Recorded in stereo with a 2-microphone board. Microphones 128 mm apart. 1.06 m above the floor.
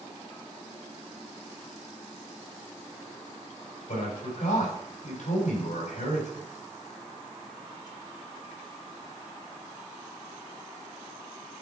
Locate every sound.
3.9 s a man speaking: 75° left (ahead or behind), 5.5 m